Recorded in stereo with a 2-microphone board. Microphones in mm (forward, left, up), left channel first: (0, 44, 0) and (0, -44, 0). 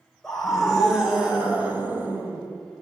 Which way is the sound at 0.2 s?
5° left (ahead or behind).